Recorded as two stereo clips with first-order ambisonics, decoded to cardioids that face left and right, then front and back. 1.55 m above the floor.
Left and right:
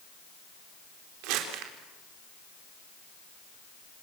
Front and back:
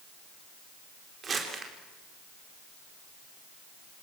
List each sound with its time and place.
1.2 s crumpling: 110° right, 4 m